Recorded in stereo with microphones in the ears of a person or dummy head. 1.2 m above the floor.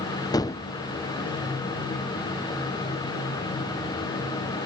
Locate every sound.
0.3 s a gunshot: 15° left (ahead or behind), 0.6 m